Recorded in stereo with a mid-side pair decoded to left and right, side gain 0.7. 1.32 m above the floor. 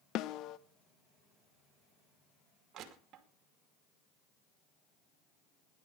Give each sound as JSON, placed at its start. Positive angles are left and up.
{"t": 0.1, "sound": "a snare drum", "azimuth_deg": 55, "distance_m": 0.9}
{"t": 2.7, "sound": "crushing", "azimuth_deg": -45, "distance_m": 2.5}